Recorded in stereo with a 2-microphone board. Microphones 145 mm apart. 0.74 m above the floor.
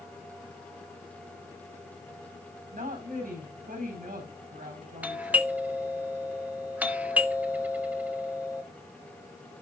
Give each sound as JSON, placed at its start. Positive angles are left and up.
{"t": 2.7, "sound": "a woman speaking", "side_deg": -80, "distance_m": 4.5}
{"t": 5.0, "sound": "a doorbell", "side_deg": -10, "distance_m": 1.2}